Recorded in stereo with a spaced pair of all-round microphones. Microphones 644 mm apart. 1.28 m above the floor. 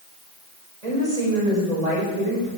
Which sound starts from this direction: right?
A woman speaking, at 0.8 s.